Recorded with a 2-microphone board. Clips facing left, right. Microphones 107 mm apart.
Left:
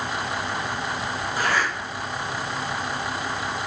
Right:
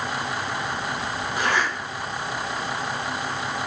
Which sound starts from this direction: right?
A zipper, at 1.4 s.